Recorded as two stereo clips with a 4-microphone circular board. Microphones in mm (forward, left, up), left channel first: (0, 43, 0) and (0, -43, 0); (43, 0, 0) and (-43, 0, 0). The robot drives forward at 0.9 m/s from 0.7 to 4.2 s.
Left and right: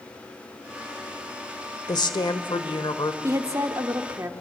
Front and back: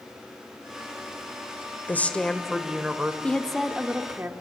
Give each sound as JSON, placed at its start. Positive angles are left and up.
{"t": 1.9, "sound": "a woman speaking", "azimuth_deg": 65, "distance_m": 1.5}
{"t": 3.2, "sound": "a woman speaking", "azimuth_deg": -65, "distance_m": 1.3}